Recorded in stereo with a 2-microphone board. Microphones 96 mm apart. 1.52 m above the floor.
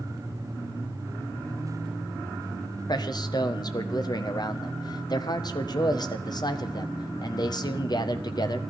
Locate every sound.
2.9 s a man speaking: 50° left (ahead or behind), 1.4 m